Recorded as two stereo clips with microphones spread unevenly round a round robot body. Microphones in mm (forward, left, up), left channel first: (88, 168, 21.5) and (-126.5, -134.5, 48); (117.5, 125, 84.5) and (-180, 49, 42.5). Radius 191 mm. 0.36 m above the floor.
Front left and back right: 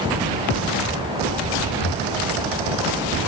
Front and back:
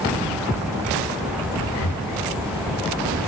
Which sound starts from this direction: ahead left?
Breathing, at 1.7 s.